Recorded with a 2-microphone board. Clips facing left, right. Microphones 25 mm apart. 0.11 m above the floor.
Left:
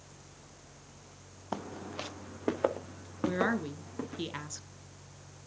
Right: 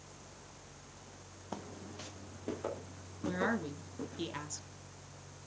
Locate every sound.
1.5 s footsteps: 30° left (ahead or behind), 0.7 m; by 4.2 s 85° left, 3.5 m
3.2 s a woman speaking: 15° left (ahead or behind), 1.3 m